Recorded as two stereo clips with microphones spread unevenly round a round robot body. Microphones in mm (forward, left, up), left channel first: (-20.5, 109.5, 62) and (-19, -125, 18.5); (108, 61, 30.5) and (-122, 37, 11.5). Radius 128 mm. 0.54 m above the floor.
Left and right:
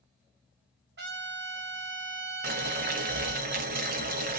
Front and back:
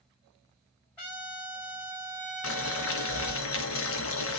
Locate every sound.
1.0 s a trumpet: 85° right, 1.6 m
2.4 s boiling: 30° right, 0.6 m